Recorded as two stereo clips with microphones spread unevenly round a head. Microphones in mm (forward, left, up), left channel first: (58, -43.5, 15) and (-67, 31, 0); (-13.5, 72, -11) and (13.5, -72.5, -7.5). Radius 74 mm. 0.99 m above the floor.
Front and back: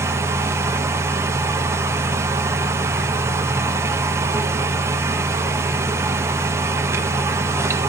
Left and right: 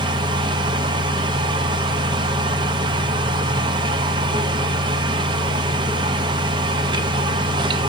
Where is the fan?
140° right, 0.9 m.